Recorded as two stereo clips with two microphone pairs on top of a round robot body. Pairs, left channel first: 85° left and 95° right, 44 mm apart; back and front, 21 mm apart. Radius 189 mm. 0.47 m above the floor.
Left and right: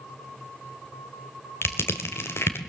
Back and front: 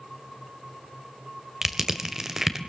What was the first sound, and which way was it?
Crushing, 65° left.